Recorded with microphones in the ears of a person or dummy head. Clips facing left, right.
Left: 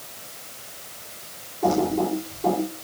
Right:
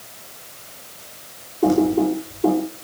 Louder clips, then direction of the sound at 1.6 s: Right 5 dB; 45° right (ahead or behind).